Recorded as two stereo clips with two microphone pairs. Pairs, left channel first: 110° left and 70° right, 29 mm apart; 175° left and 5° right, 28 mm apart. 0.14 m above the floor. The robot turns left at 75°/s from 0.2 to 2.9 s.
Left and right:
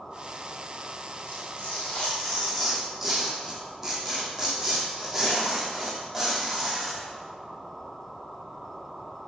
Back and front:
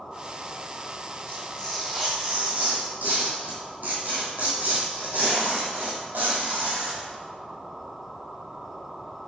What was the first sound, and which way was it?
Tearing paper, 130° left.